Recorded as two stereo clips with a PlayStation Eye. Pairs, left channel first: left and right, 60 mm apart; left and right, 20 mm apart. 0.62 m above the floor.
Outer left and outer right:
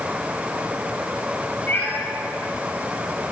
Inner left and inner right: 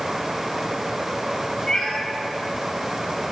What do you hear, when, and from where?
1.7 s a cat meowing: 25° left (ahead or behind), 3.5 m